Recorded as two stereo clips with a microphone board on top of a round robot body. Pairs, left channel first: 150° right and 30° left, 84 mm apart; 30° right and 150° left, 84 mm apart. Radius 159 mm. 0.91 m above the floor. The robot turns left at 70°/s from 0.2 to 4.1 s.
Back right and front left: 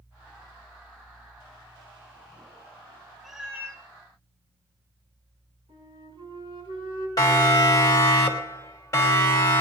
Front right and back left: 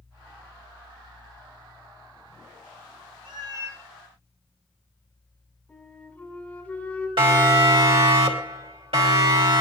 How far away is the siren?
About 2.5 m.